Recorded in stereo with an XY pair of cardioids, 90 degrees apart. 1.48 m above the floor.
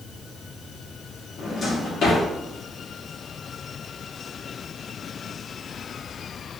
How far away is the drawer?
About 2 m.